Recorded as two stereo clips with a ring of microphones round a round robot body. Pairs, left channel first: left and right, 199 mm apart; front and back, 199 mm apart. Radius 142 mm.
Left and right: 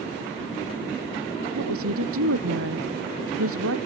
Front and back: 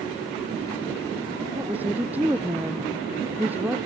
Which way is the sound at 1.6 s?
95° right.